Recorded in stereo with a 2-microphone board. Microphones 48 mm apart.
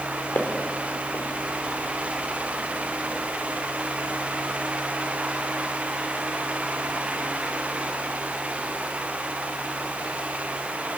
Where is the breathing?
No breathing in this recording.